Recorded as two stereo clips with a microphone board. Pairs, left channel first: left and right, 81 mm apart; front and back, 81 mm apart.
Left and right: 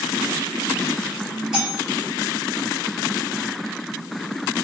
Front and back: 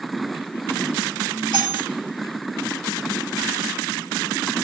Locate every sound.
1.5 s cutlery clinking: 10° right, 1.8 m